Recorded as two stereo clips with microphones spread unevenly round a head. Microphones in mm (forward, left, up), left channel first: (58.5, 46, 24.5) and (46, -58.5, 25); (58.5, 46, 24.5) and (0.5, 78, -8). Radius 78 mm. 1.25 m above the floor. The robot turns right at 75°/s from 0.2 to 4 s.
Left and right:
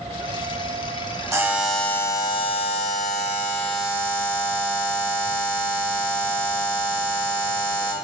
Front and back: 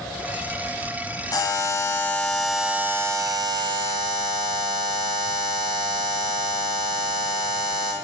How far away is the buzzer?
About 3.5 m.